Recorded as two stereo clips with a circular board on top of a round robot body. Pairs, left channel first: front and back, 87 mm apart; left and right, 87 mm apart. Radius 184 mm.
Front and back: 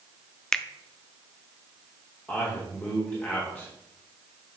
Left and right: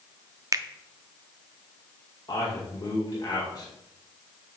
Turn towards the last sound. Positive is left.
turn(degrees=70)